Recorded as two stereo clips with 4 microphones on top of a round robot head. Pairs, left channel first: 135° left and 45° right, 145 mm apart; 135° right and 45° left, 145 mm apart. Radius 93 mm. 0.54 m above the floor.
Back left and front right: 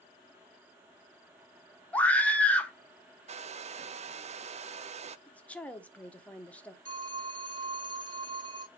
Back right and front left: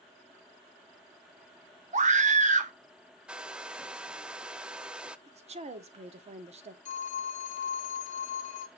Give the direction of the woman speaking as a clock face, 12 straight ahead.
10 o'clock.